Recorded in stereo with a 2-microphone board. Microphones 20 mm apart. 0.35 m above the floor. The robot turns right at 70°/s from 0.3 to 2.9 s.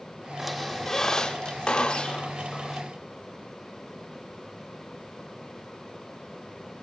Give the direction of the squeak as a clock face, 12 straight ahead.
12 o'clock.